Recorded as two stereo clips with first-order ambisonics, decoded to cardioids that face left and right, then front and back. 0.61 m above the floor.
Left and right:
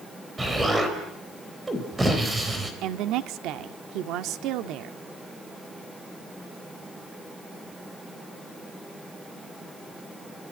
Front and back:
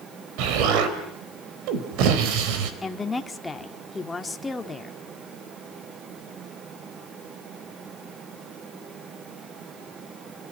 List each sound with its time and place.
0.4 s an explosion: 170° right, 3.5 m
2.8 s a woman speaking: 75° right, 1.5 m